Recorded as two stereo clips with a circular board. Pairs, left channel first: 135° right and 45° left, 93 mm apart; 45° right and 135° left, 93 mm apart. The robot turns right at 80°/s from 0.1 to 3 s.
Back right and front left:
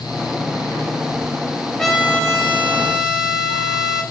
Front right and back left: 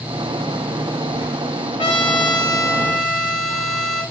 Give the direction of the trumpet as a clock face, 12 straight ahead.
2 o'clock.